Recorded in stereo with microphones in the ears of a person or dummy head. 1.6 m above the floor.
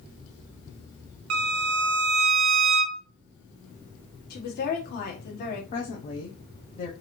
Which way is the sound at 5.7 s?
40° left (ahead or behind).